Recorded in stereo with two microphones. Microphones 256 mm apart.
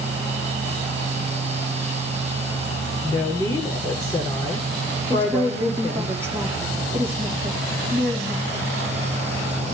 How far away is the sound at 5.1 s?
About 5 m.